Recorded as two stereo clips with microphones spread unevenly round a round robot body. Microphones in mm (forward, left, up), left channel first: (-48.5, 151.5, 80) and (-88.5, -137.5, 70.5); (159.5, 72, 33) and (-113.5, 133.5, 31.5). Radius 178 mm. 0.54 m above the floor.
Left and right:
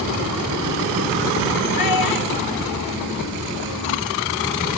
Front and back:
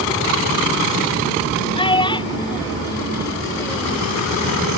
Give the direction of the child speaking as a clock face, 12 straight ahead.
10 o'clock.